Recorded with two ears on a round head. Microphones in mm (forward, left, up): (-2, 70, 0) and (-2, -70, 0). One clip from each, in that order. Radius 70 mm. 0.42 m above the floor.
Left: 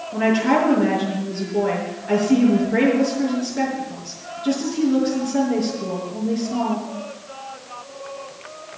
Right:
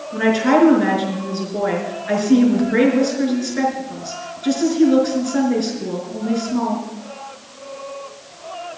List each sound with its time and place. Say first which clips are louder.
0.1 s a woman speaking: right 3 dB; 40° right (ahead or behind), 5 m